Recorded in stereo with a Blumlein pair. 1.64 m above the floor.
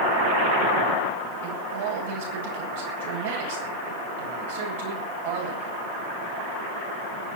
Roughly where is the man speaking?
Ahead right.